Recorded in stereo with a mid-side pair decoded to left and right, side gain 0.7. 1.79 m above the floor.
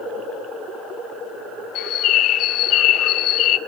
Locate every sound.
1.8 s a bird: 55° left, 0.8 m